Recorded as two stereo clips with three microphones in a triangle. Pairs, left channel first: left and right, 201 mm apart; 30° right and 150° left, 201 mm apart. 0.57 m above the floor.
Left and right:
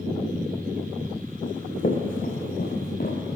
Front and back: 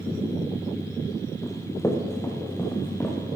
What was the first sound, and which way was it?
Running footsteps, 45° left.